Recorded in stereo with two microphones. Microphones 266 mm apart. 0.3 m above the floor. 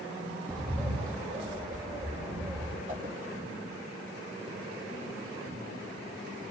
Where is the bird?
5° left (ahead or behind), 4 m.